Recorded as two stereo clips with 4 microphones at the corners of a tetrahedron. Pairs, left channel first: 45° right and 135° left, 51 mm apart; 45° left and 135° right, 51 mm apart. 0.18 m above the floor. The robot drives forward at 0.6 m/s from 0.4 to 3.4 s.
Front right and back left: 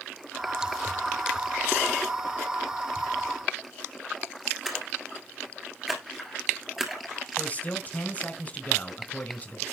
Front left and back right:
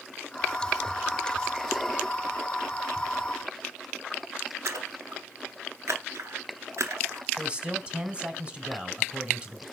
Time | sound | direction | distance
4.7 | a splash | 145° right | 1.5 m
7.4 | a man speaking | 80° right | 1.4 m